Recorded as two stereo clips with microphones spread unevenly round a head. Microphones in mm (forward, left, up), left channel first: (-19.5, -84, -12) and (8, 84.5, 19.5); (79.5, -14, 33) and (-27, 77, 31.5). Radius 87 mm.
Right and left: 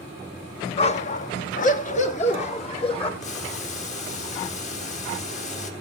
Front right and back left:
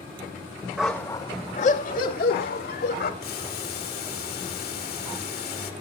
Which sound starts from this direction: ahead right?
Boiling, at 3.2 s.